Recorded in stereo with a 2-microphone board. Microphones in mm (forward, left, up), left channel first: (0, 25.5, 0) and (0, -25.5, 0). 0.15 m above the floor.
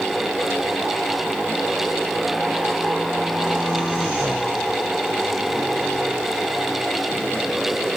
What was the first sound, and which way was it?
Only background noise.